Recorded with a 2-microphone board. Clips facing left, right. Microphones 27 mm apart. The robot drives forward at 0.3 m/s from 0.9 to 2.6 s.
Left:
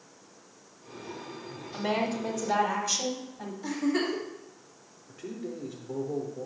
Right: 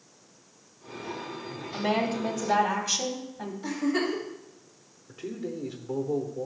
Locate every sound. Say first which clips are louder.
1.7 s a woman speaking: right 2 dB; 20° right (ahead or behind), 1.2 m
3.6 s a giggle: right 1 dB; 15° right (ahead or behind), 2 m
5.1 s a man speaking: right 3 dB; 40° right (ahead or behind), 0.9 m